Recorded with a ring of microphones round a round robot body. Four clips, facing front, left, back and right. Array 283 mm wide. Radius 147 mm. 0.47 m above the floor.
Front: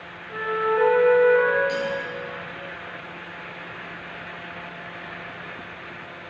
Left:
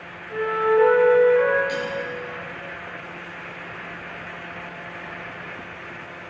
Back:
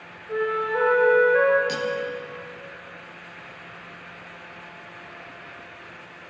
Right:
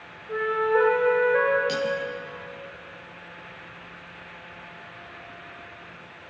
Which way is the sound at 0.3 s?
130° right.